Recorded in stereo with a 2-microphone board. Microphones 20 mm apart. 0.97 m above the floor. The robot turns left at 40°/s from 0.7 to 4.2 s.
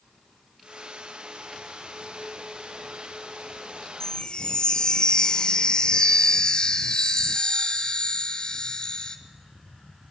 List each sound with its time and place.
4.0 s a chime: 35° left (ahead or behind), 1.3 m; by 9.2 s 45° left (ahead or behind), 1.3 m